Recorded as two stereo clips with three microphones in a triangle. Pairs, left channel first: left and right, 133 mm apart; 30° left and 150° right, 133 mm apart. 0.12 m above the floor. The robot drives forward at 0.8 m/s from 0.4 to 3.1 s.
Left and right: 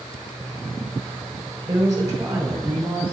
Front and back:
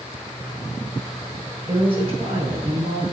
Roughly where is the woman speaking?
Behind right.